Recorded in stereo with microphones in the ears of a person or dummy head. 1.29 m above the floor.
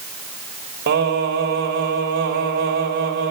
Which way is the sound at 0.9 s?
60° right (ahead or behind).